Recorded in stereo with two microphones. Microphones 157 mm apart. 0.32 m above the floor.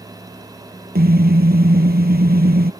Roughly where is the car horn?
Right.